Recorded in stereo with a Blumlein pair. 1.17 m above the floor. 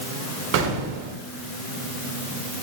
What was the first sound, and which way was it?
An explosion, 40° right.